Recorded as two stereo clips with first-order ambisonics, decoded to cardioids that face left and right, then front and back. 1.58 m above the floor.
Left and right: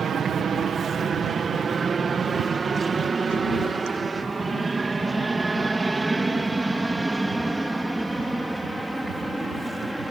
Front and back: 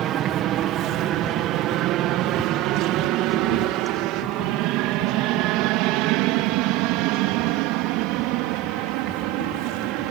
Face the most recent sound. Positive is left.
turn(degrees=180)